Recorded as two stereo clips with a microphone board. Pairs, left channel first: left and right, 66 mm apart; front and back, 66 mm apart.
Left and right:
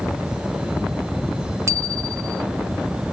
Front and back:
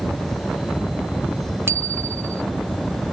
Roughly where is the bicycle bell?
Behind right.